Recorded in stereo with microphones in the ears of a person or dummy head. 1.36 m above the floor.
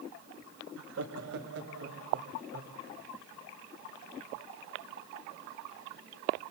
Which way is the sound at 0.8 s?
75° right (ahead or behind).